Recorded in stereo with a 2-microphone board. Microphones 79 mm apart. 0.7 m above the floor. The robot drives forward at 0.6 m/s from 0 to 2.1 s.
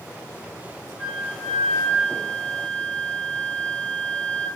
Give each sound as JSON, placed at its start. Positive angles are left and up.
{"t": 1.0, "sound": "a flute", "side_deg": 5, "distance_m": 5.0}